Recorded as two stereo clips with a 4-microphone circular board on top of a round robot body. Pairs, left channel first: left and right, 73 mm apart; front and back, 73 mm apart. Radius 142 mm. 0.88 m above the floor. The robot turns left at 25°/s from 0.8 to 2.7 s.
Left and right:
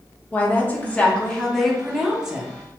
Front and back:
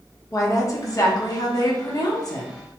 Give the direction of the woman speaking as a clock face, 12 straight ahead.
11 o'clock.